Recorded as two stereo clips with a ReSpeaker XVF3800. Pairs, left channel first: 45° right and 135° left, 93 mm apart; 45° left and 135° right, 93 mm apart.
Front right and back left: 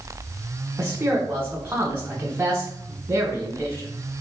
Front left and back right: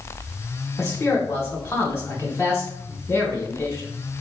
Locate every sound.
0.8 s a man speaking: 90° left, 1.0 m